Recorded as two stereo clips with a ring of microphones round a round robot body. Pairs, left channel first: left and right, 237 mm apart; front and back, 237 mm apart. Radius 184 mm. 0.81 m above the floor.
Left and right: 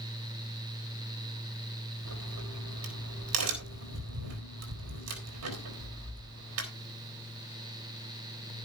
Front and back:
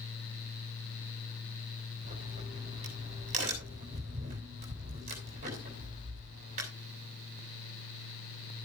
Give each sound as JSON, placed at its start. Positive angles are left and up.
{"t": 2.0, "sound": "a crack", "azimuth_deg": -115, "distance_m": 3.5}